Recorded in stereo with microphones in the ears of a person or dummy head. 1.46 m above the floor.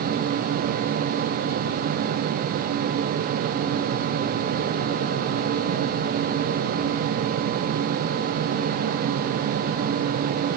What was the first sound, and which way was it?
Only background noise.